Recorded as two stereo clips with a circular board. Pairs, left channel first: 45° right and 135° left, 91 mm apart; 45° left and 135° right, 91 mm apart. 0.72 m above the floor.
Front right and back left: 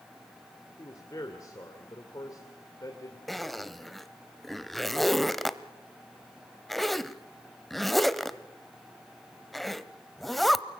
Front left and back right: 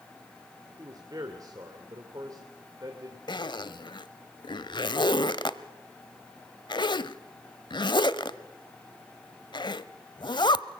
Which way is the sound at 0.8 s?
90° right.